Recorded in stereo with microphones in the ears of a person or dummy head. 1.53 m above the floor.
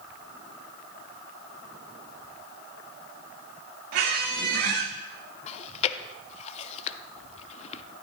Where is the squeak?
50° right (ahead or behind), 1.3 m.